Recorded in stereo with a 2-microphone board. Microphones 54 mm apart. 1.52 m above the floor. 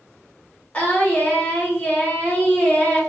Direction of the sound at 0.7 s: 20° left (ahead or behind).